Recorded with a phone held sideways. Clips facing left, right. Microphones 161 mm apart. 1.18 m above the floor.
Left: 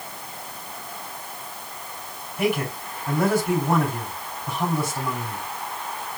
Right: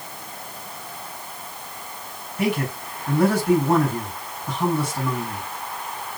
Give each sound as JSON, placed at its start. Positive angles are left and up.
{"t": 2.4, "sound": "a man speaking", "side_deg": 50, "distance_m": 3.5}